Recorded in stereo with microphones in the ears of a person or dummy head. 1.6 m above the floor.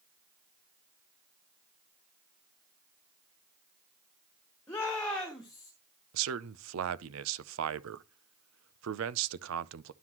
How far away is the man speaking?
About 0.6 m.